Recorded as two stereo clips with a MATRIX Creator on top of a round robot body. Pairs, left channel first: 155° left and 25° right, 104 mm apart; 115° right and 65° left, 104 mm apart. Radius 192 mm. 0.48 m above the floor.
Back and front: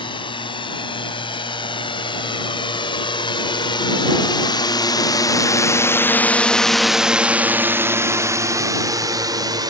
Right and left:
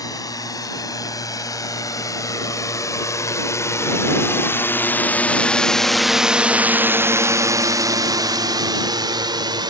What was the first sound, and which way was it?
A drone, 165° right.